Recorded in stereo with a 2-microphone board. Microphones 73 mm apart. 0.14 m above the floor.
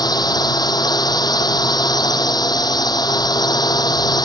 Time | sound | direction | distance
0.0 | a drone | 60° left (ahead or behind) | ?